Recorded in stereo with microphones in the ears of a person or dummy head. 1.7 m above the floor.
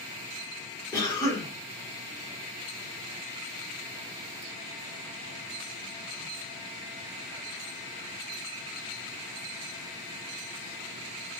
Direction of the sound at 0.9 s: 15° left (ahead or behind).